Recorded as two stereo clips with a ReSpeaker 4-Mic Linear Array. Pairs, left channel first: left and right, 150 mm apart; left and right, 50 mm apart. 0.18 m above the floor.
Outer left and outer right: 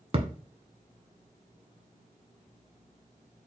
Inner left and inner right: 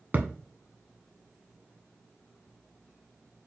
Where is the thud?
40° right (ahead or behind), 0.6 m.